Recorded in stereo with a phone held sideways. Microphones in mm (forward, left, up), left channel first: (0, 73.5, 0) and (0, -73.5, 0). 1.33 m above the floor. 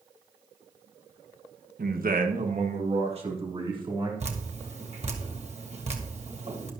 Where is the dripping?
50° right (ahead or behind), 1.6 m.